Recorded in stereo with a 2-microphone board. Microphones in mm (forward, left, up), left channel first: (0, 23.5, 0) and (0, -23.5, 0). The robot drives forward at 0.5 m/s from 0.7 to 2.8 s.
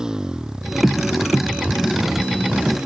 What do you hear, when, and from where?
0.0 s a motorcycle: 15° right (ahead or behind); by 2.9 s 20° right (ahead or behind)